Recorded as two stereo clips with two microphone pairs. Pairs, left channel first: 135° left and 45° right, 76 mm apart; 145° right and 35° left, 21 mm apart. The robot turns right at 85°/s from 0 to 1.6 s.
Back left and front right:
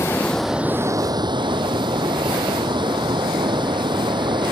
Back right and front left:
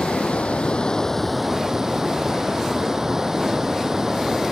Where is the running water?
170° right; by 4.5 s 35° right.